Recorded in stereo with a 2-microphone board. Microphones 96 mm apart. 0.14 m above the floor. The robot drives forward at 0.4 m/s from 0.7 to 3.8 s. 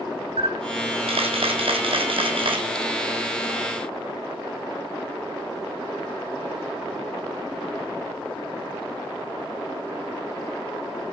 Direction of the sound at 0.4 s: 75° right (ahead or behind).